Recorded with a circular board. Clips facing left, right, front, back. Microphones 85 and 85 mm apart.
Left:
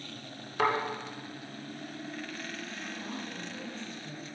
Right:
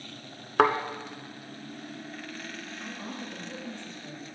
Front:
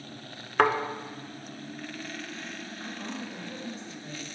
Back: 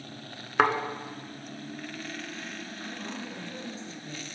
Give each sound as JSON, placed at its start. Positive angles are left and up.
{"t": 0.6, "sound": "a thud", "azimuth_deg": -95, "distance_m": 0.8}
{"t": 2.8, "sound": "a woman speaking", "azimuth_deg": -85, "distance_m": 2.0}